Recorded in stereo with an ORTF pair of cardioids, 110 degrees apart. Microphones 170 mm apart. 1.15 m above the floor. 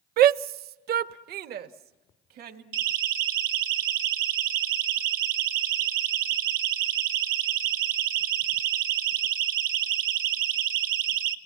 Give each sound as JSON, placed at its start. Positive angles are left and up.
{"t": 0.2, "sound": "a shout", "azimuth_deg": -65, "distance_m": 0.6}
{"t": 2.7, "sound": "a siren", "azimuth_deg": -60, "distance_m": 2.0}